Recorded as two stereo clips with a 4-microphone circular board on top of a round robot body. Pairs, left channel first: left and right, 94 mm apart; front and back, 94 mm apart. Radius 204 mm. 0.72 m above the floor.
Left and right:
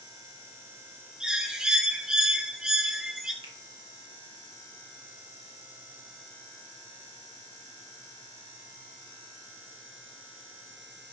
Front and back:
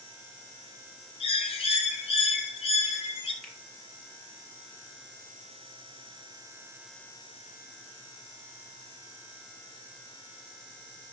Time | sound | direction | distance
1.2 | a bird | 10° right | 0.7 m
3.4 | a finger snap | 85° right | 2 m